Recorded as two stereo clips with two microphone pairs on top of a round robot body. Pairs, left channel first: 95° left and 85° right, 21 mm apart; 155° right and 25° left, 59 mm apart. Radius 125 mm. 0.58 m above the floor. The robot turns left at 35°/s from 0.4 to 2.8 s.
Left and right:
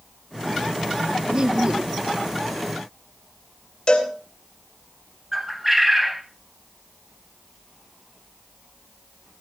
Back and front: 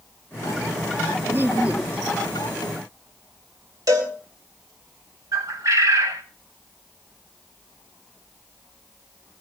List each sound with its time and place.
1.3 s laughter: 30° right, 1.2 m; by 2.0 s 55° right, 1.2 m
3.9 s a cowbell: 40° left, 4 m
5.3 s a bird: 5° right, 0.8 m